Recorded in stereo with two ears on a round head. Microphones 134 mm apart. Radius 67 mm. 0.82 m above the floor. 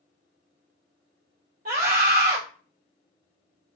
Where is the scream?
70° right (ahead or behind), 2 m.